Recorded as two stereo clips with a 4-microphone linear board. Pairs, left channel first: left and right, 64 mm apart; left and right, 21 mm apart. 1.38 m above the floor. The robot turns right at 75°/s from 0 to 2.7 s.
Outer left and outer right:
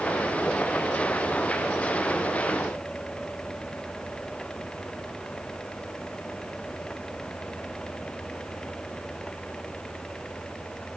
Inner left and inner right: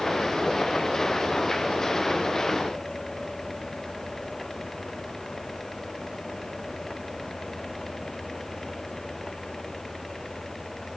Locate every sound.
Only background noise.